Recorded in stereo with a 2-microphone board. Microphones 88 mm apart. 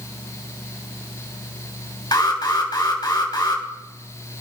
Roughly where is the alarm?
Left.